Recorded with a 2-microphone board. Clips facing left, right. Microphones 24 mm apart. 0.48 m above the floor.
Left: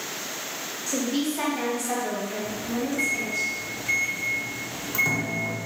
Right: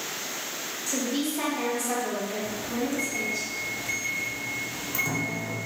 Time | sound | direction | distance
0.9 | a woman speaking | 20° left (ahead or behind) | 1.3 m
2.5 | a microwave | 20° left (ahead or behind) | 0.5 m